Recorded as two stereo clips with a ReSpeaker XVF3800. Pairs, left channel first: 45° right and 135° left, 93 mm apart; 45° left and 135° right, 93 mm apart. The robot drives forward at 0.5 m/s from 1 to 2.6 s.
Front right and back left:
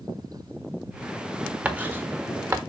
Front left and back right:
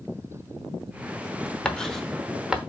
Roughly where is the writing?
Left.